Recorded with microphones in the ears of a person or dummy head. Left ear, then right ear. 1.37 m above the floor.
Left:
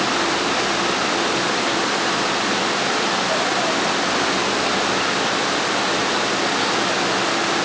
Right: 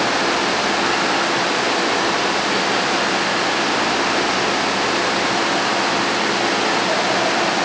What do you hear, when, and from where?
Only background noise.